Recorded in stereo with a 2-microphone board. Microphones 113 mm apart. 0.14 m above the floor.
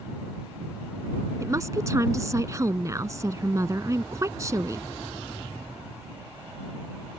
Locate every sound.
1.4 s a woman speaking: 30° right (ahead or behind)